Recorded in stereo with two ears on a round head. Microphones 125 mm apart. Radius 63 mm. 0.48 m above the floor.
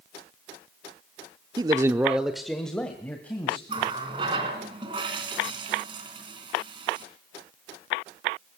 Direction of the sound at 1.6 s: 30° right (ahead or behind).